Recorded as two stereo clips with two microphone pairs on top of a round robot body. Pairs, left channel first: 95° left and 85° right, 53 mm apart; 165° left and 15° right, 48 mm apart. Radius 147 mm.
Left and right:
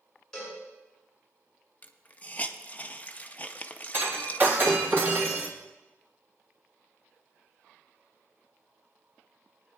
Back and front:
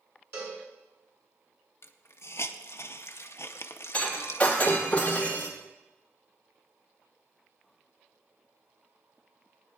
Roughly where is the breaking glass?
Behind right.